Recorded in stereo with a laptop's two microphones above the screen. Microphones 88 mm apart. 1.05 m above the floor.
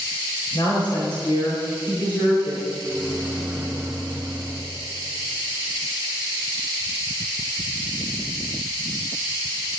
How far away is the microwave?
About 2 m.